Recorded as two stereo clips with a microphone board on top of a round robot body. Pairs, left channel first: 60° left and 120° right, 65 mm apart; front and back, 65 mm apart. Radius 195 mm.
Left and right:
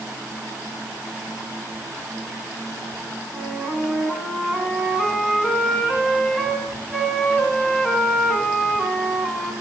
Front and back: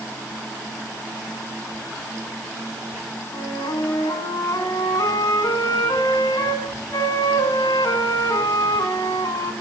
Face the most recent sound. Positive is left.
turn(degrees=-30)